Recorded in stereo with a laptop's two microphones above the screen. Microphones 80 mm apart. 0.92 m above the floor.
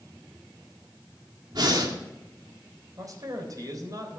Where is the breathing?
65° right (ahead or behind), 2.5 m.